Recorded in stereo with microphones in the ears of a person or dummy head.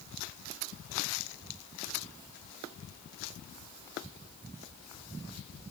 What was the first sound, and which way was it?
Only background noise.